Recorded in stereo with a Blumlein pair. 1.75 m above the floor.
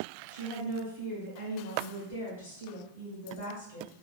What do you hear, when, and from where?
0.3 s a woman speaking: 60° left, 1.3 m